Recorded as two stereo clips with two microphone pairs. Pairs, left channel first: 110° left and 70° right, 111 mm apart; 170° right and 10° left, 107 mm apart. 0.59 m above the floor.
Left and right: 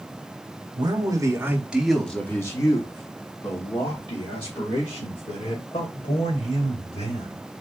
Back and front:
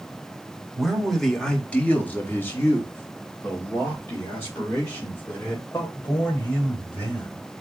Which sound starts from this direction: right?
A man speaking, at 0.8 s.